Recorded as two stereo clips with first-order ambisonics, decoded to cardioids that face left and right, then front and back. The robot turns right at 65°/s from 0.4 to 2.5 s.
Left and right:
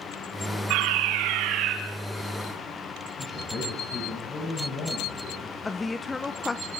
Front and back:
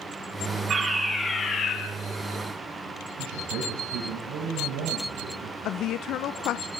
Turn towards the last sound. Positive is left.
turn(degrees=15)